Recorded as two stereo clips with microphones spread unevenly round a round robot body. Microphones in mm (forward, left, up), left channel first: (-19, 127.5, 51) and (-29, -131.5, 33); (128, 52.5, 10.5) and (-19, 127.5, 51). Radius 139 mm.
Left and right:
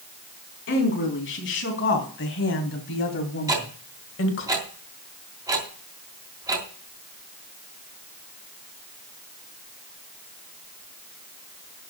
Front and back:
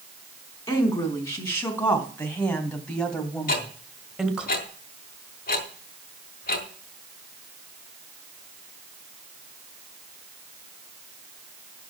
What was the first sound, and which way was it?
A woman speaking, 40° left.